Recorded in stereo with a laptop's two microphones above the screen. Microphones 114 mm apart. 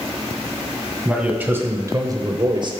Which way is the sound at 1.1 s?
5° right (ahead or behind).